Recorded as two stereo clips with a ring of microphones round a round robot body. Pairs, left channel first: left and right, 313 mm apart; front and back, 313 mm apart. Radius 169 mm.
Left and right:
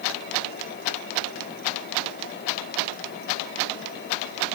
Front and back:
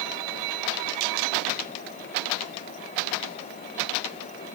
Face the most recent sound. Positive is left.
No sound to turn to.